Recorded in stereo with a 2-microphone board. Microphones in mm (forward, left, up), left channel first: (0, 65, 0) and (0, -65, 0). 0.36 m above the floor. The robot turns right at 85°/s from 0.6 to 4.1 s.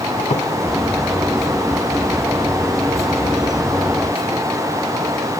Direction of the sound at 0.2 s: 65° left (ahead or behind).